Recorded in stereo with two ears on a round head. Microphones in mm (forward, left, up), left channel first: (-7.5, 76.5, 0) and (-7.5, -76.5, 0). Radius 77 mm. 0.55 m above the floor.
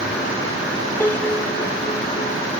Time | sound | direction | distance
1.0 | a piano | 10° left (ahead or behind) | ?